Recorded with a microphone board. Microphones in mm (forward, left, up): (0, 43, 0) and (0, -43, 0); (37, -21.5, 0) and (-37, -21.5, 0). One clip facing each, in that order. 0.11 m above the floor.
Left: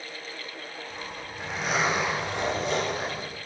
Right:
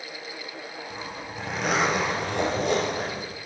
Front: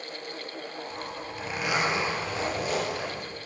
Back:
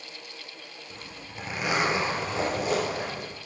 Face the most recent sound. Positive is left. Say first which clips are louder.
# right 2 dB, front 7 dB
turn(degrees=-120)